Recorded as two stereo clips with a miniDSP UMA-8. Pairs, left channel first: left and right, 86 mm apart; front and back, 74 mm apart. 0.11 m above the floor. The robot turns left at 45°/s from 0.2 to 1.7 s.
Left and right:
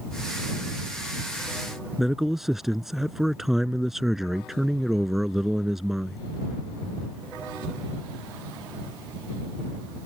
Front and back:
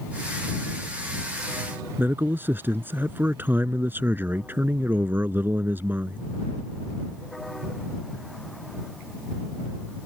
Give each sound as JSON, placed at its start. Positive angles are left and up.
{"t": 2.0, "sound": "a man speaking", "azimuth_deg": -170}